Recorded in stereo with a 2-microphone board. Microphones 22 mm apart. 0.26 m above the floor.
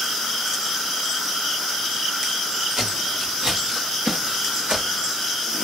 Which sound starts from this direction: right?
Footsteps, at 2.8 s.